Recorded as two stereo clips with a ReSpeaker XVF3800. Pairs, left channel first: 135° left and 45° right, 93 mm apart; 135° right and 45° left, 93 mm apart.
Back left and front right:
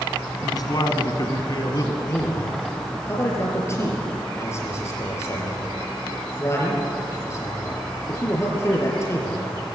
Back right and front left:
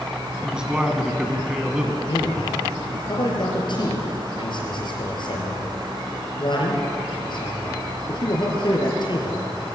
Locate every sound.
0.4 s a man speaking: 125° left, 2 m
2.0 s a man speaking: 165° right, 5 m